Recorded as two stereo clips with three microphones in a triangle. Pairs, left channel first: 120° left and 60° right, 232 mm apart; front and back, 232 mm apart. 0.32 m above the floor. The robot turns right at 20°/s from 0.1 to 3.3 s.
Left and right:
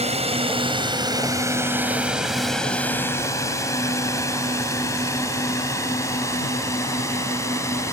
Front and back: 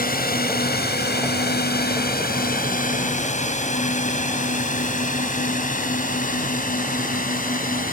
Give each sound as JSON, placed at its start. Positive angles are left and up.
{"t": 0.0, "sound": "a drone", "azimuth_deg": -15}